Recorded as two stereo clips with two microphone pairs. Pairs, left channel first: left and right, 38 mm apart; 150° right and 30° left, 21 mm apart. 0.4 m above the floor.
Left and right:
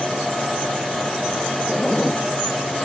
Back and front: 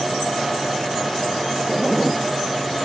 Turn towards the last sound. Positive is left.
turn(degrees=125)